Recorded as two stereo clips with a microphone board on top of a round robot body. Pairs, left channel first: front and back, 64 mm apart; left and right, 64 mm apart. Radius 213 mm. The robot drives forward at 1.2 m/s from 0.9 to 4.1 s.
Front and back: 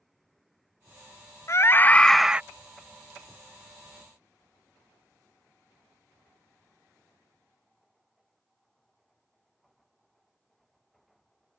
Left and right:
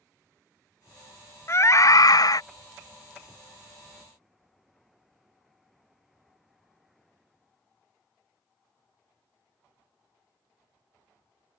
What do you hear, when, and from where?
1.5 s a scream: 40° left; by 2.4 s 105° left